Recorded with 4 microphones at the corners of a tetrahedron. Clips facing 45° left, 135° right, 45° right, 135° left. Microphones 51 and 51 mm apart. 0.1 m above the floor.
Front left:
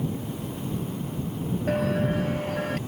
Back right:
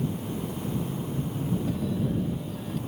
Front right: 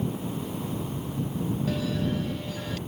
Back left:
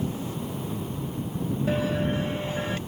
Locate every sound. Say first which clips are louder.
1.7 s a bell: front left 4 dB, back left 6 dB; 75° left